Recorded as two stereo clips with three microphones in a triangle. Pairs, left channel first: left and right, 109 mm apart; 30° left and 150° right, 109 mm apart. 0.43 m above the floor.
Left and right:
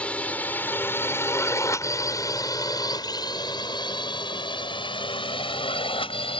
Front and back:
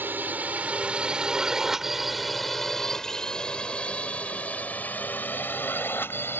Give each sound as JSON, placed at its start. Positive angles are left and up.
{"t": 0.0, "sound": "a drone", "azimuth_deg": 160}